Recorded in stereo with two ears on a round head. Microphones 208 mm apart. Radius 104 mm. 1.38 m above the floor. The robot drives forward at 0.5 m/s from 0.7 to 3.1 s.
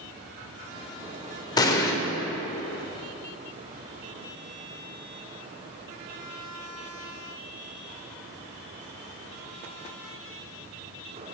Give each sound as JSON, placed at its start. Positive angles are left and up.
{"t": 1.6, "sound": "an explosion", "side_deg": 15, "distance_m": 0.8}